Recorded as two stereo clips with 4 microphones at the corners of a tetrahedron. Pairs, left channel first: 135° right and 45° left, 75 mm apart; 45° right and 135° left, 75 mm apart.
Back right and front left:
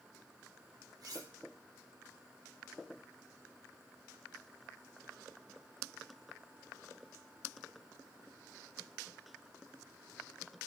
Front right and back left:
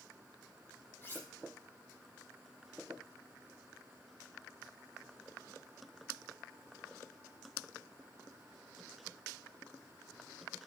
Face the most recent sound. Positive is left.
turn(degrees=15)